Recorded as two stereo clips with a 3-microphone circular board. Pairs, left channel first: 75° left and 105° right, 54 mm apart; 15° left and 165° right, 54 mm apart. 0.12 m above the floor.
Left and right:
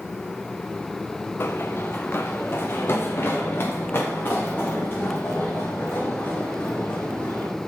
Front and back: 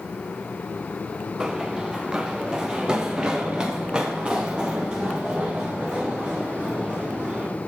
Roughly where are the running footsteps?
Behind left.